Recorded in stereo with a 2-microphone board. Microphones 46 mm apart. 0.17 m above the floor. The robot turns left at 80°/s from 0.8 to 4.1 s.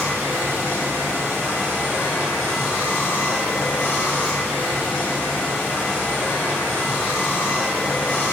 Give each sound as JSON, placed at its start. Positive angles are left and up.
{"t": 0.0, "sound": "running water", "azimuth_deg": -80, "distance_m": 1.8}